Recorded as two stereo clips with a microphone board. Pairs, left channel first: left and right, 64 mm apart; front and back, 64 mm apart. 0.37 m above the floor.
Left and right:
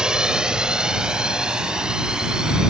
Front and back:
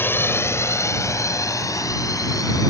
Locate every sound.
0.0 s a drone: 20° right; by 2.7 s 10° right